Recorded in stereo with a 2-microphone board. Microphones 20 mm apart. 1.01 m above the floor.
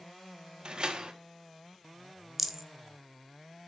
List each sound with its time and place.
0.7 s a door slam: 50° right (ahead or behind), 1.2 m
2.4 s a rattle: 10° right (ahead or behind), 0.8 m